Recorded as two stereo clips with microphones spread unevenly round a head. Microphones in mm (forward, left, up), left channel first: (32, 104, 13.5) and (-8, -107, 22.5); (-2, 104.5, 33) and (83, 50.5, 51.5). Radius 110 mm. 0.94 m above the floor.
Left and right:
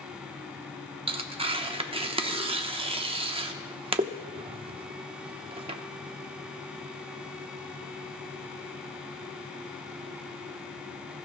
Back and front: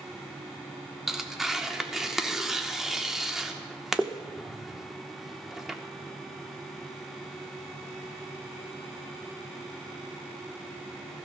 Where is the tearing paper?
140° right, 0.8 m.